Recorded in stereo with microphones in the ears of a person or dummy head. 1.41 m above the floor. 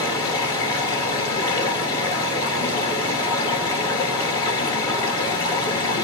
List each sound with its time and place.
0.0 s running water: 20° left (ahead or behind), 1.9 m